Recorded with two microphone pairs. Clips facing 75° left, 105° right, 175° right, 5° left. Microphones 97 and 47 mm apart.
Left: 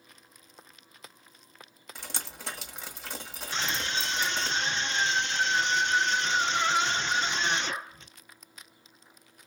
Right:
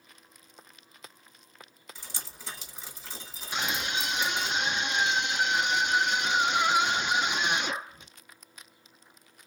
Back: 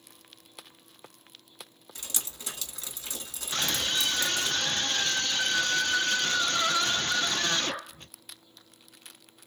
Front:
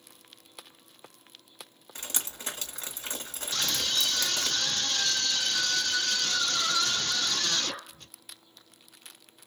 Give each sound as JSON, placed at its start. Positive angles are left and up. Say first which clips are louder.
{"t": 1.9, "sound": "dripping", "louder": "left 6 dB, front 2 dB", "azimuth_deg": 55, "distance_m": 1.5}
{"t": 3.5, "sound": "a scream", "louder": "right 1 dB, back 1 dB", "azimuth_deg": -170, "distance_m": 0.9}